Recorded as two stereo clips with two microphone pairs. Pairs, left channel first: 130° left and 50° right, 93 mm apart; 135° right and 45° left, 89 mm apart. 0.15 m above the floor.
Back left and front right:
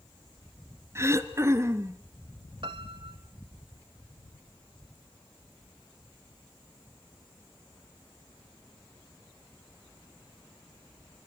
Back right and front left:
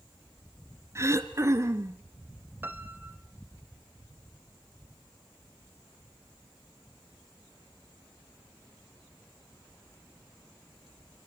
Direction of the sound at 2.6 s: 20° right.